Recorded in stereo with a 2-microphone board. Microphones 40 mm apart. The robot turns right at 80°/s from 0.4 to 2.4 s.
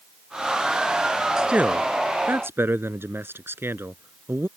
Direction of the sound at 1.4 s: 165° right.